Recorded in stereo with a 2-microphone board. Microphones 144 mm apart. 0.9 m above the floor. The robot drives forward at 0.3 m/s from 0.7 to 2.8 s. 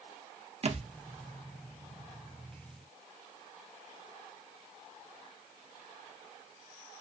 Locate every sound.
0.6 s a thud: 45° right (ahead or behind), 0.5 m